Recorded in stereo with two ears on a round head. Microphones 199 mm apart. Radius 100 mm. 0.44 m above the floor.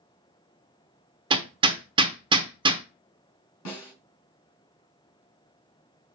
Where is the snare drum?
80° left, 3 m.